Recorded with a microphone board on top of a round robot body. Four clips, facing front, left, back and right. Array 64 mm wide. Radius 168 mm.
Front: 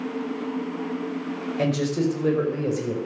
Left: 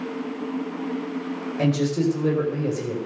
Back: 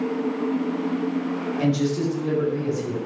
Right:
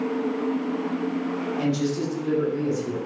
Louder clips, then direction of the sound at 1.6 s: Left 5 dB, even; 30° left.